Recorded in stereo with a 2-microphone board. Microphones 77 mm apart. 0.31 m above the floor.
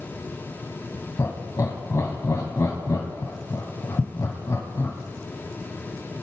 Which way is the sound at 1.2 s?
45° left (ahead or behind).